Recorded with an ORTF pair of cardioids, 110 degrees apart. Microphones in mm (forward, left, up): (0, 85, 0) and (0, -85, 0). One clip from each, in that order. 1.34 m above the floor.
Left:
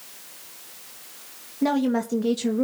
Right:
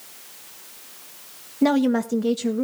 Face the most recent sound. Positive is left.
turn(degrees=5)